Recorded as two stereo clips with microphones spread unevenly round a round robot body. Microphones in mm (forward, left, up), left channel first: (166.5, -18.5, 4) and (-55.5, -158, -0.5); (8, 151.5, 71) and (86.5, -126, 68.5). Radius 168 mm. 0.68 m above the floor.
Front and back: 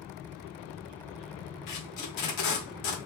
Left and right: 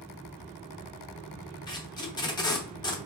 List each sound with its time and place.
1.7 s tape being pulled: 30° left, 0.7 m